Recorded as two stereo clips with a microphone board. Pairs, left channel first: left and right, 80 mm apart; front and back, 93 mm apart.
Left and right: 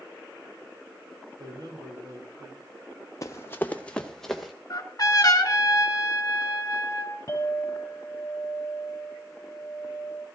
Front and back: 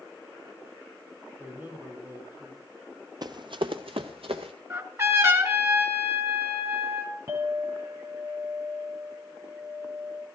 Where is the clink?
130° left, 2.5 m.